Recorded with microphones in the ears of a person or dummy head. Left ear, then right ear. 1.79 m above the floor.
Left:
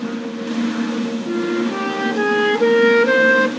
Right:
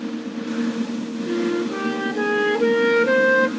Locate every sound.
1.3 s a flute: 10° left (ahead or behind), 0.6 m